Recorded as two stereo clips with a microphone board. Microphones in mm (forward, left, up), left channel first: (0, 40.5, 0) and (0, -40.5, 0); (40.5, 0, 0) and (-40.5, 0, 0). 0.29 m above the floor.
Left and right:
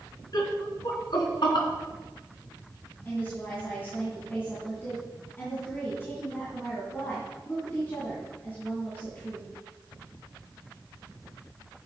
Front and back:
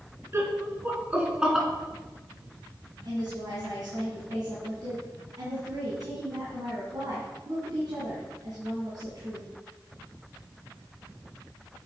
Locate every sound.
0.3 s laughter: 125° left, 3 m; by 1.7 s 95° left, 3 m
3.0 s a woman speaking: 150° left, 3 m